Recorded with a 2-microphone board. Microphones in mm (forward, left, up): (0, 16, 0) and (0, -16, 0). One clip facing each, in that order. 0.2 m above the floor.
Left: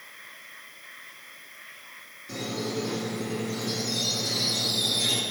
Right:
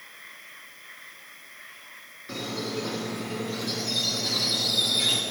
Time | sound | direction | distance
2.3 | a squeak | 40° right (ahead or behind) | 1.4 m